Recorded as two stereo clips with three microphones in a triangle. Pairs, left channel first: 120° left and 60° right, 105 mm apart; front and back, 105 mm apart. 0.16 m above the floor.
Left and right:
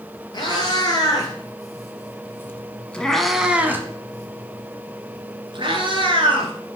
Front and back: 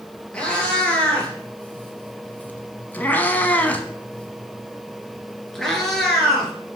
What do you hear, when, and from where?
0.3 s a cat meowing: 80° left, 1.8 m; by 6.5 s 90° right, 1.8 m